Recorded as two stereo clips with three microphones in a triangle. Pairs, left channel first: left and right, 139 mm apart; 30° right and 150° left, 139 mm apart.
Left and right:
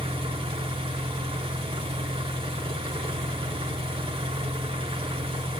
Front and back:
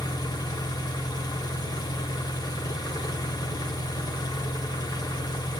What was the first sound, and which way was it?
An engine running, 75° right.